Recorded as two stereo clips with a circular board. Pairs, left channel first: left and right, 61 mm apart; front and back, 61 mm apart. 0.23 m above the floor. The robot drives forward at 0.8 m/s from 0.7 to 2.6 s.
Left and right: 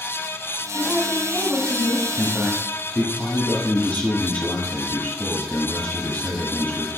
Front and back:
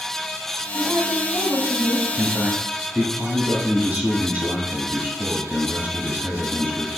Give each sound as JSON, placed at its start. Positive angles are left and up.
{"t": 0.7, "sound": "a woman speaking", "azimuth_deg": 130, "distance_m": 1.5}
{"t": 2.2, "sound": "a man speaking", "azimuth_deg": 115, "distance_m": 1.0}